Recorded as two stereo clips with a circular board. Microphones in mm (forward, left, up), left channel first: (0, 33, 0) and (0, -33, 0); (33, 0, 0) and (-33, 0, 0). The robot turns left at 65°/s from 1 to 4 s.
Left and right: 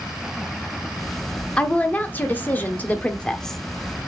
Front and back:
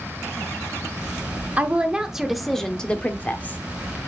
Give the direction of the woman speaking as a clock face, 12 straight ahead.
7 o'clock.